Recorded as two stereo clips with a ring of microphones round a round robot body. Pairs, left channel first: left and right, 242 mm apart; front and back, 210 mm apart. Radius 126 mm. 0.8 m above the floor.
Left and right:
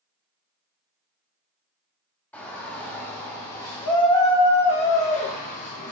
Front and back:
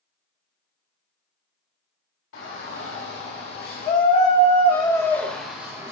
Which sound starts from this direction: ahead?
A shout, at 2.3 s.